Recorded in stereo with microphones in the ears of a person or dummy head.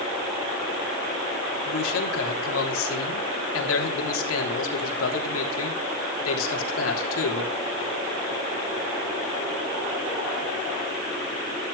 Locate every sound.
1.6 s a man speaking: 90° left, 3.5 m